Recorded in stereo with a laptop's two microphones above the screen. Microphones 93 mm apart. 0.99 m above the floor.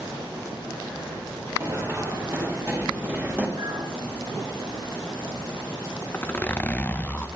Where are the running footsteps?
35° right (ahead or behind), 5.5 m; by 3.5 s 20° right (ahead or behind), 4.5 m.